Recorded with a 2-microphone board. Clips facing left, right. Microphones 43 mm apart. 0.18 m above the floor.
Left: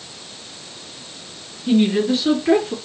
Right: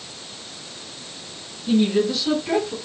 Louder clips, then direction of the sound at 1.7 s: Left 2 dB; 40° left (ahead or behind).